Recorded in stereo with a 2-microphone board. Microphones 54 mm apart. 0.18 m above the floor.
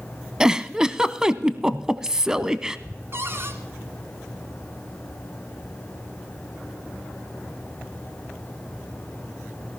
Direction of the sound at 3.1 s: 50° right (ahead or behind).